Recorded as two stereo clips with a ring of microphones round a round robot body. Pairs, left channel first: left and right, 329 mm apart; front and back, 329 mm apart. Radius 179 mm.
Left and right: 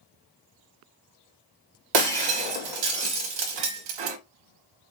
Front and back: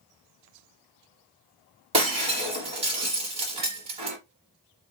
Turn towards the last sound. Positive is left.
turn(degrees=-105)